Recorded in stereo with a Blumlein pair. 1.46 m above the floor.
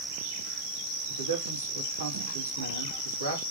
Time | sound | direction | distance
1.1 | a man speaking | 70° right | 2.5 m